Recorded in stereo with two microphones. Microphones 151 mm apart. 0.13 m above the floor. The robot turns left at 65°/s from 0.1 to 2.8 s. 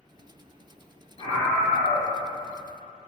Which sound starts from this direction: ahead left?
A scream, at 1.2 s.